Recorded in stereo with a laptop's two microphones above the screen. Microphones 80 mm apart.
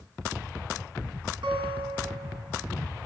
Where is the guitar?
90° right, 6.5 m.